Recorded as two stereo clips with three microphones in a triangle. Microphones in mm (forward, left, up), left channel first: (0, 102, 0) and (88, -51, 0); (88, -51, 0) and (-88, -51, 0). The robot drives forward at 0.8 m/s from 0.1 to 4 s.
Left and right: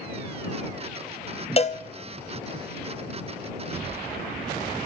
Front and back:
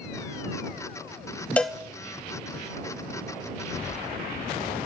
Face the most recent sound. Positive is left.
turn(degrees=165)